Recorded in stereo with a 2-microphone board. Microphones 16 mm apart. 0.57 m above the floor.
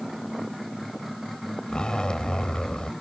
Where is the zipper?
65° left (ahead or behind).